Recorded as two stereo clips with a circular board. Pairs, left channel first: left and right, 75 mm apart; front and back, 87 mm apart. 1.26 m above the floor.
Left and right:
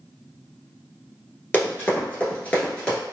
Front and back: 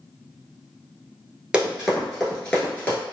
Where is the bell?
I don't hear a bell.